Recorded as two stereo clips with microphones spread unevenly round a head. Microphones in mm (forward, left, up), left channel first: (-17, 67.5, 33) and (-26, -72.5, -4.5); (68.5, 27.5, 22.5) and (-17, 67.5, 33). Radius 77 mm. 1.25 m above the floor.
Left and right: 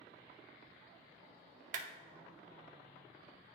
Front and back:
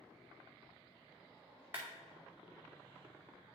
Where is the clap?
130° right, 0.8 m.